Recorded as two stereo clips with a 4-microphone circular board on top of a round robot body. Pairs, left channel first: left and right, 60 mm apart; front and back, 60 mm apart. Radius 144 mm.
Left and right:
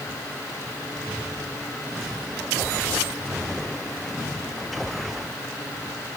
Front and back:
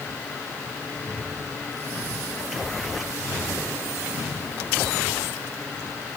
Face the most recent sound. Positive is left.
No sound to turn to.